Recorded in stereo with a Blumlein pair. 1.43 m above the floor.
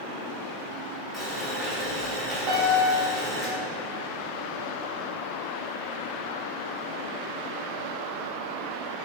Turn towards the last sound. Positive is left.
turn(degrees=-40)